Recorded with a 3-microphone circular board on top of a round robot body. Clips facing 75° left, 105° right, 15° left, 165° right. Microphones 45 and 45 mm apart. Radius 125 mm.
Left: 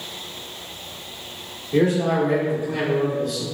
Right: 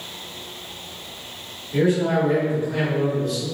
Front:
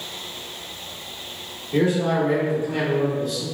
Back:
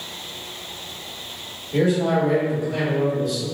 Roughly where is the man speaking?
Left.